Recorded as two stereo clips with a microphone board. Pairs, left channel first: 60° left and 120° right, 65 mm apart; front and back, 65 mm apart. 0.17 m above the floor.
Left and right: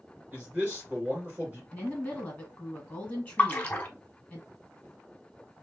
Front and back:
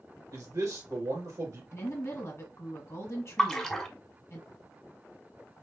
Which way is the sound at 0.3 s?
170° left.